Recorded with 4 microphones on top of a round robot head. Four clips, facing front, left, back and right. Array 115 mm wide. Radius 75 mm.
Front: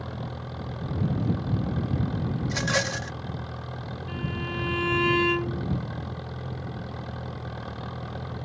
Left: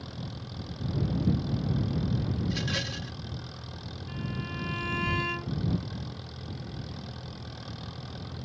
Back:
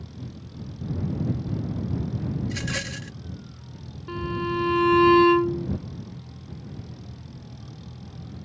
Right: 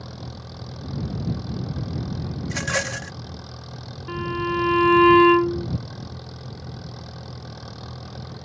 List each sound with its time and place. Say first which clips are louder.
0.0 s an engine running: right 3 dB, front 5 dB; 20° right
2.4 s a rattle: right 6 dB, front 4 dB; 50° right
4.1 s a violin: right 13 dB, back 7 dB; 115° right